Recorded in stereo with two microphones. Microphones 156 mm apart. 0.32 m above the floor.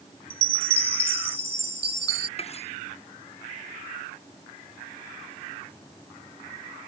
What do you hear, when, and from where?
0.3 s a chime: 40° right (ahead or behind)
2.4 s cutlery clinking: 40° left (ahead or behind)